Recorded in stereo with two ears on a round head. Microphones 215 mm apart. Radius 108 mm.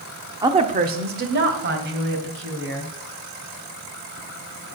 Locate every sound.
0.4 s a woman speaking: 15° right (ahead or behind), 0.9 m; by 2.9 s 55° right (ahead or behind), 4 m